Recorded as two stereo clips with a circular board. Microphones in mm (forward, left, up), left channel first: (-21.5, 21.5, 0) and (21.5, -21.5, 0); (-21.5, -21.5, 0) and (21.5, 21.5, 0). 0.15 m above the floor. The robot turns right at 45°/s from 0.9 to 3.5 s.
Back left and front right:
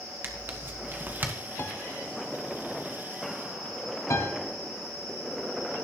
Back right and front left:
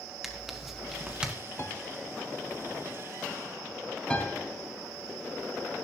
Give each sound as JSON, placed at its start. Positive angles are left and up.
{"t": 0.2, "sound": "tearing paper", "azimuth_deg": -35, "distance_m": 1.3}
{"t": 1.6, "sound": "a piano", "azimuth_deg": 180, "distance_m": 0.7}
{"t": 4.1, "sound": "a piano", "azimuth_deg": 155, "distance_m": 2.0}